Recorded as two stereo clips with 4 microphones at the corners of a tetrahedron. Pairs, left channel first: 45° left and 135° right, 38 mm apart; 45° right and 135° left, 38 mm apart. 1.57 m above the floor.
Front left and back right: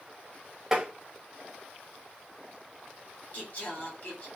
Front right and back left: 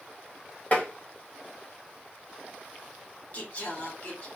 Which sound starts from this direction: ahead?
Singing, at 3.3 s.